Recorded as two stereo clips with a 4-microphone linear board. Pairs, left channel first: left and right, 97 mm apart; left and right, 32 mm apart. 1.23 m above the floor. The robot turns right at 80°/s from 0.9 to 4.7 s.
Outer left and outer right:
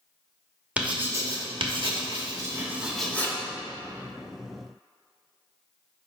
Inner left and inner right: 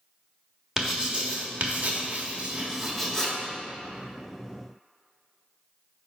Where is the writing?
15° right (ahead or behind), 1.5 m; by 3.4 s 30° left (ahead or behind), 1.5 m.